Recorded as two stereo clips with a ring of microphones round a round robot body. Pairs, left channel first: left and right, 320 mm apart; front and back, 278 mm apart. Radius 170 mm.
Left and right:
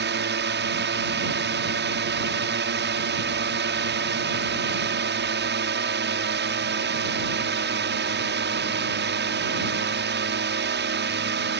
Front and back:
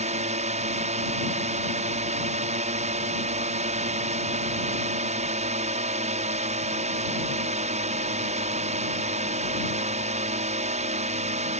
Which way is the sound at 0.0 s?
125° right.